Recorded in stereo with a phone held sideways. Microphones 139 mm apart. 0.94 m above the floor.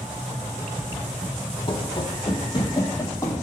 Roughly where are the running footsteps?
Left.